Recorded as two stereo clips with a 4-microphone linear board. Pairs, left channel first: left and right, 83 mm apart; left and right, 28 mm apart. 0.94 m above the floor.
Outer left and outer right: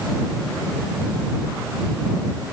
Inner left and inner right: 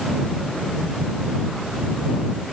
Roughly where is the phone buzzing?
No phone buzzing in this recording.